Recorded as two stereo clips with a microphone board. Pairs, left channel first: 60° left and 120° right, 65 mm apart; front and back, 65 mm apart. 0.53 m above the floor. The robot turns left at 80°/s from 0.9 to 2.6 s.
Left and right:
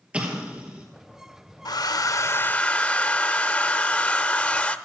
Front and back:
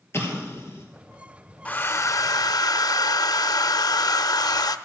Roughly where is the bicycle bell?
I don't hear a bicycle bell.